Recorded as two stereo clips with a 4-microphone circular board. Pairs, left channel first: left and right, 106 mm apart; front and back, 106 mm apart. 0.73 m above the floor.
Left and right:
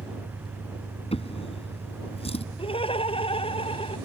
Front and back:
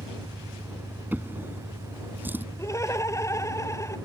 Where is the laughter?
60° left.